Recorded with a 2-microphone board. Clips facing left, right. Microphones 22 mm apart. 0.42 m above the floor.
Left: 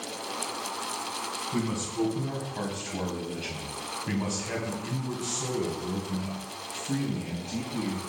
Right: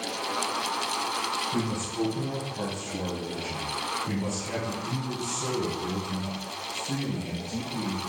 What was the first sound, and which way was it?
A man speaking, 45° left (ahead or behind).